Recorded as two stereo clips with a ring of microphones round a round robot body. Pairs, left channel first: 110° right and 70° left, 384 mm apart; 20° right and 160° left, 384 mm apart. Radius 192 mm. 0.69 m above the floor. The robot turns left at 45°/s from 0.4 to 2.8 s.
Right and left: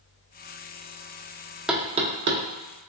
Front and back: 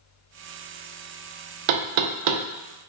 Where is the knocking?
155° left, 0.6 m; by 2.4 s 120° left, 0.6 m.